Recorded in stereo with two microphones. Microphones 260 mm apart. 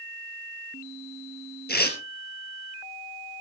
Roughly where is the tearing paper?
Left.